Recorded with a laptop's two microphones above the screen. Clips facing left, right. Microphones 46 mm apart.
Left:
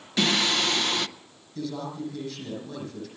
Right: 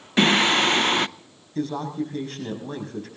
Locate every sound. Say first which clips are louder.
0.2 s singing: right 6 dB; 35° right (ahead or behind), 0.6 m
1.6 s a man speaking: right 6 dB; 45° right (ahead or behind), 6 m